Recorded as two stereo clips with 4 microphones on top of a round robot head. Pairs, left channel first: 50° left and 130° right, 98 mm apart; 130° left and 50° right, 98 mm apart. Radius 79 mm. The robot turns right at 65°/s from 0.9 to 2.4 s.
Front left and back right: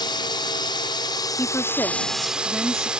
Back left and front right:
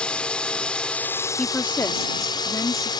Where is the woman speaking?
65° left; by 2.9 s 130° left.